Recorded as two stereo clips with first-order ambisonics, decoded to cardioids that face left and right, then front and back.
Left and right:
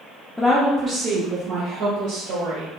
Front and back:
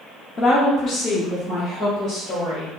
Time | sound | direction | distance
0.4 | a woman speaking | 5° left | 0.7 m